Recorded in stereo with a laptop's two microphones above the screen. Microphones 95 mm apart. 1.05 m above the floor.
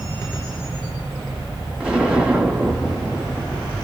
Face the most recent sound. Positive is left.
turn(degrees=-15)  # may be behind; listen again after turning